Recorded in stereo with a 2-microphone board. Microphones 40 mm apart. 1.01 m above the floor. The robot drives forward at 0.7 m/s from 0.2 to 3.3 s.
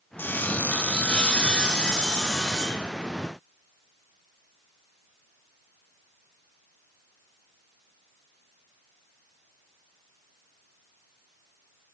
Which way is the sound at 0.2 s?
55° left (ahead or behind).